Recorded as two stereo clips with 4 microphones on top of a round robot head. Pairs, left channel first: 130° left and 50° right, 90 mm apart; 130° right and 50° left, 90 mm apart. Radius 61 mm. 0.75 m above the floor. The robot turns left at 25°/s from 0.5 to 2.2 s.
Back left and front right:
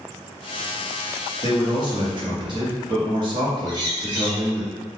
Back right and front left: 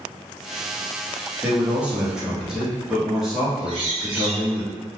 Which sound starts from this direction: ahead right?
A bird, at 3.7 s.